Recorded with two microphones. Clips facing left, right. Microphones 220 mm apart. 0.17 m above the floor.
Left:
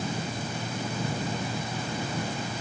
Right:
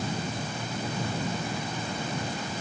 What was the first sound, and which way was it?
Only background noise.